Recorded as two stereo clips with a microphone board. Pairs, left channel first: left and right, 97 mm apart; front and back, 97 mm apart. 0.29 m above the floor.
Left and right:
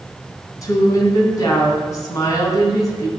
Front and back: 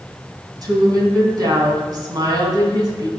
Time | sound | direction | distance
0.6 | a woman speaking | 140° left | 3 m